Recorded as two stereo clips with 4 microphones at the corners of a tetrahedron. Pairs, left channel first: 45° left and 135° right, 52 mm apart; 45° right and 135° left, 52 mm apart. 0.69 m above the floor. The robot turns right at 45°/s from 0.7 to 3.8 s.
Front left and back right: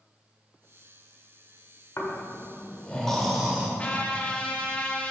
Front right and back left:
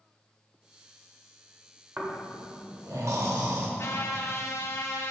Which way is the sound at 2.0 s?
75° left.